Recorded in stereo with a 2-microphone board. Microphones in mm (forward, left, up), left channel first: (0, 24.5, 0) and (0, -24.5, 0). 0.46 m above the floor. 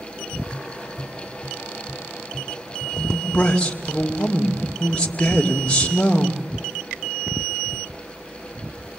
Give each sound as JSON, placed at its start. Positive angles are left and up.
{"t": 0.5, "sound": "tapping", "side_deg": -65, "distance_m": 6.0}
{"t": 3.0, "sound": "a man speaking", "side_deg": 25, "distance_m": 2.5}